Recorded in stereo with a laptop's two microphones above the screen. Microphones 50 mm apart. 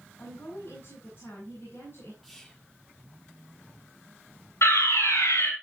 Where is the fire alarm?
70° left (ahead or behind), 5 m.